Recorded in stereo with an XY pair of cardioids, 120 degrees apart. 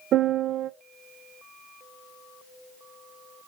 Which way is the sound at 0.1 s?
60° right.